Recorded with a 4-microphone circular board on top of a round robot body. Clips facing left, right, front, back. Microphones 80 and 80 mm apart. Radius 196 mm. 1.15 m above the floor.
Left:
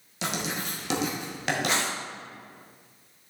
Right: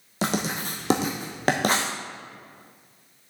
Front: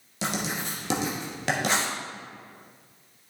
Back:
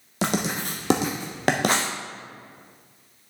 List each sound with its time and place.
0.2 s writing: 140° right, 0.6 m